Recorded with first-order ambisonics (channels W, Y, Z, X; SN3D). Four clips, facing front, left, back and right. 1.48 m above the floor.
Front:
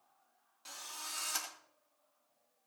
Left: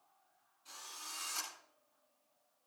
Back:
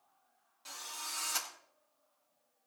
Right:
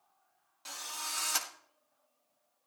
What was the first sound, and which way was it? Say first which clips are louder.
A drill: right 9 dB, back 2 dB; 90° right.